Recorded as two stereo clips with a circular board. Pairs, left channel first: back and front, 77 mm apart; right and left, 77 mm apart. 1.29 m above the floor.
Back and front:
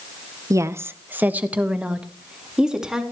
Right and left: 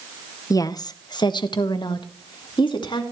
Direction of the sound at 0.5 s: 45° right.